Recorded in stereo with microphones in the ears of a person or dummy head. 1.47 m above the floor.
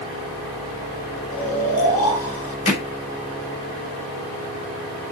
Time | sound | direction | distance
1.3 | snoring | 35° left (ahead or behind) | 6.5 m
2.6 | hammering | 30° left (ahead or behind) | 6 m